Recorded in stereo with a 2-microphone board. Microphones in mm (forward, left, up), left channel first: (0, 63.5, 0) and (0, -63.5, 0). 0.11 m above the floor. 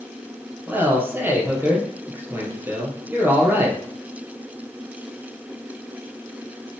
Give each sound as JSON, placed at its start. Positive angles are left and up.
{"t": 0.7, "sound": "a man speaking", "side_deg": -15, "distance_m": 3.0}